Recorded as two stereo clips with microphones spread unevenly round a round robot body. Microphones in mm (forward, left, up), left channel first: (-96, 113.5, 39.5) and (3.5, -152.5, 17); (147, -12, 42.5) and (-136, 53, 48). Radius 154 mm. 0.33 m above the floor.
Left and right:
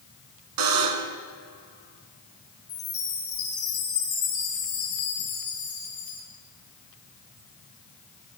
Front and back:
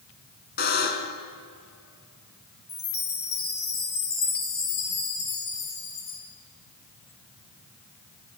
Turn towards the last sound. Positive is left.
turn(degrees=30)